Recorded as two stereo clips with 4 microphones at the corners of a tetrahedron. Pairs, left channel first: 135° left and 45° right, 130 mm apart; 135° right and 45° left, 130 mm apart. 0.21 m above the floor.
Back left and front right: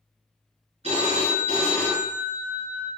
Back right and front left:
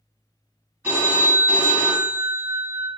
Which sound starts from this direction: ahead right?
A phone ringing, at 0.8 s.